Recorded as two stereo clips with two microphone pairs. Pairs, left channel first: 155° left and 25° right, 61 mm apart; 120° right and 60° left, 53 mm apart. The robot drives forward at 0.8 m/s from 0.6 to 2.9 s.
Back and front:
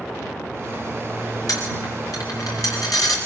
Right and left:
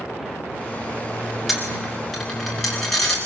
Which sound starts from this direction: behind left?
A dropped coin, at 1.5 s.